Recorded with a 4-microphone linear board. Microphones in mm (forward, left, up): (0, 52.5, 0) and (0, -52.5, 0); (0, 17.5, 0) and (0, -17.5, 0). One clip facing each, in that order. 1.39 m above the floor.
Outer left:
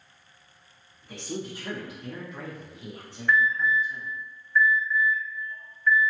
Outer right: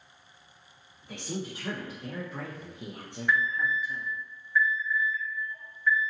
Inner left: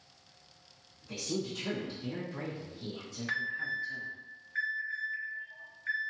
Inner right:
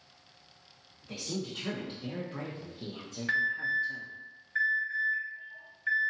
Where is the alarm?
10° right (ahead or behind), 1.7 m.